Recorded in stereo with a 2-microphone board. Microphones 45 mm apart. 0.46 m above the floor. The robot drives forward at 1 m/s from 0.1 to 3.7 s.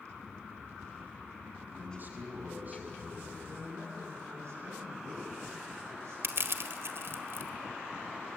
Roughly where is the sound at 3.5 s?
Right.